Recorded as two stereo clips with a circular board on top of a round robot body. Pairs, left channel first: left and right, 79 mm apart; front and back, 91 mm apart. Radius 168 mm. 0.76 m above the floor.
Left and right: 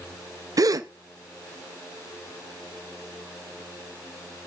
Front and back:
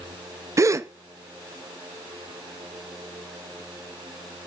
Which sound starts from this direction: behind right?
A gasp, at 0.6 s.